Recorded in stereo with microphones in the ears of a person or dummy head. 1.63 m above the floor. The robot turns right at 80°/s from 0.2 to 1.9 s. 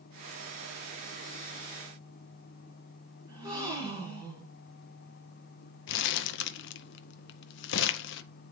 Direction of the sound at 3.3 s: 20° right (ahead or behind).